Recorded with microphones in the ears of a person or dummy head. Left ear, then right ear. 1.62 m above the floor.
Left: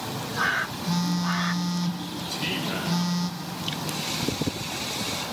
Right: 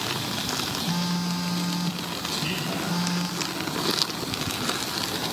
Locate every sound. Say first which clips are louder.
0.9 s a phone buzzing: left 1 dB; 25° left (ahead or behind), 1.0 m
2.3 s a man speaking: left 2 dB; 65° left (ahead or behind), 6 m